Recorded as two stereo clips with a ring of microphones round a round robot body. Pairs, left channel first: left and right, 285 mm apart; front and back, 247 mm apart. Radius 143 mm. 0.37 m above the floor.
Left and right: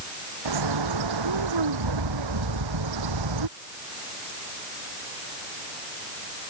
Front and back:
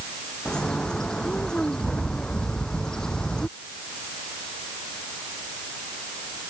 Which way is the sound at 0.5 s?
90° right.